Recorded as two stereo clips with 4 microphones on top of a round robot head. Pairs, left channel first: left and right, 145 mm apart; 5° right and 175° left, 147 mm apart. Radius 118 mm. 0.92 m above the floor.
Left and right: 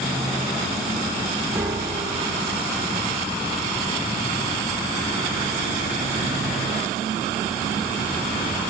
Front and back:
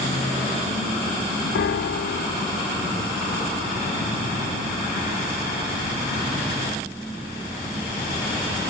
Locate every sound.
1.6 s a piano: 10° right, 0.6 m